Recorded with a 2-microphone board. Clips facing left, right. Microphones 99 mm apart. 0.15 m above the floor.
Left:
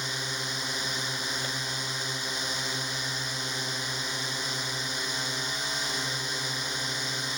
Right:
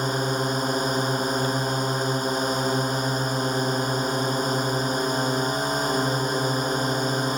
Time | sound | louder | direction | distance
0.0 | a drone | right 12 dB | 45° right (ahead or behind) | ?